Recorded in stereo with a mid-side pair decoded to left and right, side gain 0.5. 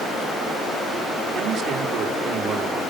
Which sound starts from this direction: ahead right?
A man speaking, at 1.3 s.